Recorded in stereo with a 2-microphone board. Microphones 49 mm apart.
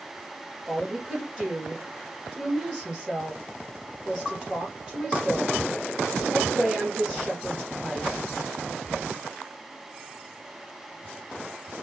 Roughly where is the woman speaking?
Centre.